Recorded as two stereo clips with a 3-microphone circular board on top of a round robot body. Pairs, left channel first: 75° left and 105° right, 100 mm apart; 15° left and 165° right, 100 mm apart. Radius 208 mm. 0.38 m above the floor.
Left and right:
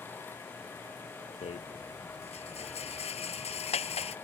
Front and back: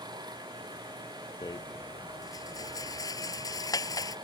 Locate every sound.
0.0 s running water: 145° left
1.4 s a rattle: 70° left